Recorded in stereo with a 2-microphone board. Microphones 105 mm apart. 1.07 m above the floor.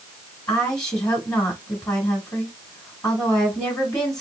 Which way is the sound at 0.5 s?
35° left (ahead or behind).